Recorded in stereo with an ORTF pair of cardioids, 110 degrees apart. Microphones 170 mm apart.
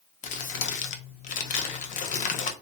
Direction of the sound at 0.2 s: 50° left.